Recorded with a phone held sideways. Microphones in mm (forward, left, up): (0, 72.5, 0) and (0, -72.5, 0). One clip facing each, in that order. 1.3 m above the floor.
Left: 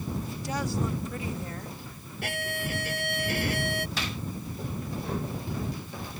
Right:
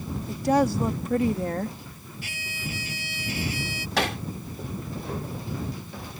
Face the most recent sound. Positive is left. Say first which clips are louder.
# right 8 dB
turn(degrees=-75)  # may be behind; listen again after turning